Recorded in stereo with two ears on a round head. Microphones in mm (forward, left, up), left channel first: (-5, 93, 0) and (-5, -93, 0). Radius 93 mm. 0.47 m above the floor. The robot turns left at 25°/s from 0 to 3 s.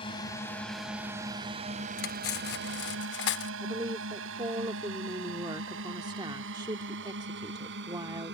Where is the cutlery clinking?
45° left (ahead or behind); by 3.5 s 55° left (ahead or behind).